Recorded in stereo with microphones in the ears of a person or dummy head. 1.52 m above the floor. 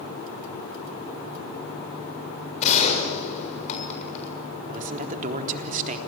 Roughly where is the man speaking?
Right.